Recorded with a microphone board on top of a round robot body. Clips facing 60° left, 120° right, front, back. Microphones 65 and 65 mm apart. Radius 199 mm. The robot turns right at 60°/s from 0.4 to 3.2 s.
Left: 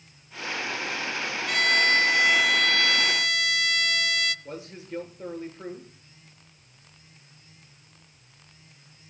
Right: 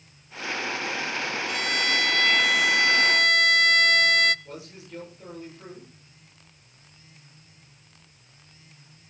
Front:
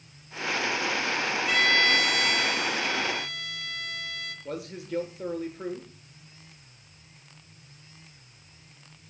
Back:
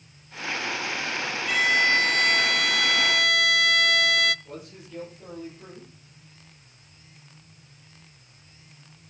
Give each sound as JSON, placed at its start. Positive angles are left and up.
{"t": 1.5, "sound": "a violin", "azimuth_deg": 90, "distance_m": 0.5}
{"t": 4.5, "sound": "a man speaking", "azimuth_deg": 5, "distance_m": 8.0}